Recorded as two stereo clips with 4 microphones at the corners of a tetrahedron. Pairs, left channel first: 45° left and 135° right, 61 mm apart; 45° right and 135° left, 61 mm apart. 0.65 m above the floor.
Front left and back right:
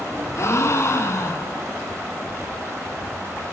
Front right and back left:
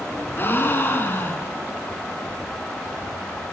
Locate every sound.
0.4 s a gasp: 10° left, 1.4 m